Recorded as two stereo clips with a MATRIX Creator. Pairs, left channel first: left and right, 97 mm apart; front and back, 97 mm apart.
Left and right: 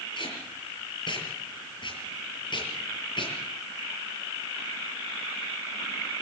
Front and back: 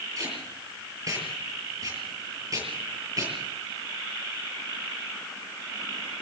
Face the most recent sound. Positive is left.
turn(degrees=125)